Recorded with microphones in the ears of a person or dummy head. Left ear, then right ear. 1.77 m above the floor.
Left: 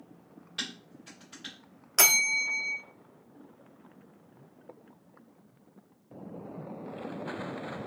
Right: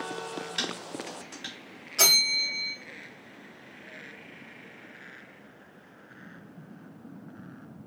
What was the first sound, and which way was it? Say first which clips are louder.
Dishes clattering: right 3 dB; 35° right (ahead or behind).